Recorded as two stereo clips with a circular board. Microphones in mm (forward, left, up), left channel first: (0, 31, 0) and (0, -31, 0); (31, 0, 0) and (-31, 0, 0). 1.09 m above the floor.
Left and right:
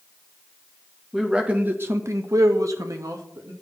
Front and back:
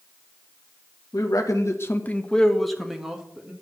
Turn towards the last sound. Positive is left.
turn(degrees=-105)